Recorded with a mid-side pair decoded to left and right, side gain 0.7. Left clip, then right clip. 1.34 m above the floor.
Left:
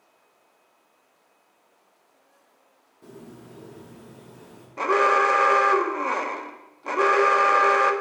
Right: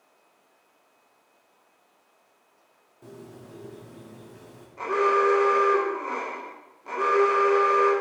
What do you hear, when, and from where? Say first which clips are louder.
3.0 s a bird: even; 5° right, 1.9 m
4.8 s an alarm: left 3 dB; 40° left, 0.9 m